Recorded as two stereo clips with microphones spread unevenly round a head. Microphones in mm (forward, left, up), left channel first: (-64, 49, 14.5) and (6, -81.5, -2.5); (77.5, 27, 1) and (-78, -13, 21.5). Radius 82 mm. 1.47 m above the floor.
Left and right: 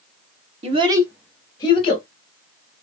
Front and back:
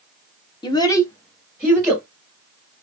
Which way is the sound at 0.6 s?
40° right.